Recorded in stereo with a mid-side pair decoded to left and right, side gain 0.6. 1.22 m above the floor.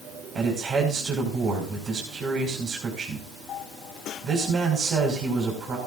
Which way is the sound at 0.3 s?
40° right.